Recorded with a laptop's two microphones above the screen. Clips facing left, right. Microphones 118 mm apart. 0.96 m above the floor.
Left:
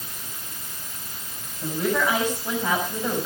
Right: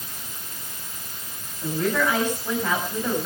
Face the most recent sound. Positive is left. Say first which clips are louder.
# even
turn(degrees=15)  # may be behind; listen again after turning